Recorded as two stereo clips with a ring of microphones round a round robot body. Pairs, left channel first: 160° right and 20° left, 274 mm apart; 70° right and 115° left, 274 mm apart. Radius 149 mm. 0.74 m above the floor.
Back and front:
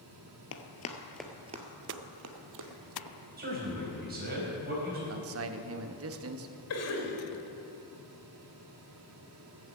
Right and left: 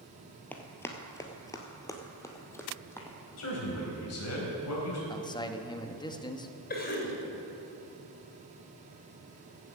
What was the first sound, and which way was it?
Running footsteps, 150° right.